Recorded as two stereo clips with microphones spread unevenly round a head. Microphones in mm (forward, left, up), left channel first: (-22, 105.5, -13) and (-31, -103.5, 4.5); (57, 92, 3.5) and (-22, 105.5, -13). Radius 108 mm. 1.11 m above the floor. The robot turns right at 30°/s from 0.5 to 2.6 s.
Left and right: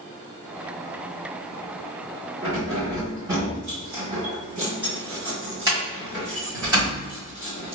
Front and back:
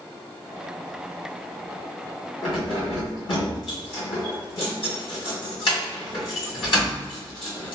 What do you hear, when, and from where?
2.4 s keys jangling: 25° right, 1.6 m; by 7.8 s 20° right, 1.6 m